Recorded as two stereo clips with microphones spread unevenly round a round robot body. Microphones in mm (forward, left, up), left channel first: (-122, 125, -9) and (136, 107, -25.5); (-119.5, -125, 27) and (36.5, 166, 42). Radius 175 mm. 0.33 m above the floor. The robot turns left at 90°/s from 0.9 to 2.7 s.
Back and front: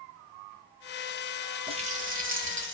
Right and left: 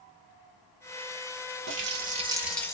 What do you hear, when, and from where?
1.7 s a running tap: 45° left, 0.6 m; by 2.8 s 45° right, 0.6 m